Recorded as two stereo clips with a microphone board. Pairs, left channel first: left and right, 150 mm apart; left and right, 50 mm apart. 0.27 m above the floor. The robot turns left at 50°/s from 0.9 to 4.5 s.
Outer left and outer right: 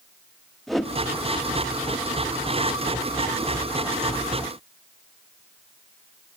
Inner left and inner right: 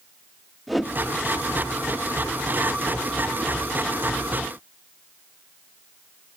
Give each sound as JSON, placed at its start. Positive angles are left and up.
{"t": 0.7, "sound": "a whoosh", "side_deg": 0, "distance_m": 0.8}